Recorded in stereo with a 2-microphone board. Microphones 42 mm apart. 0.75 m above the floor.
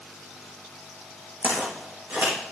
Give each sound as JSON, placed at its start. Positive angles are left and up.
{"t": 1.4, "sound": "footsteps", "side_deg": -60, "distance_m": 2.0}